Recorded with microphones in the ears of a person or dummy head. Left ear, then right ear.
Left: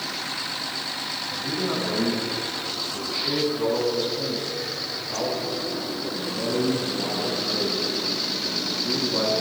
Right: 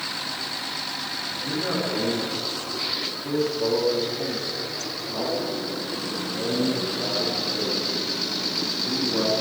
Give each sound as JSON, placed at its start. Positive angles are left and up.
{"t": 1.3, "sound": "a man speaking", "side_deg": 50, "distance_m": 9.5}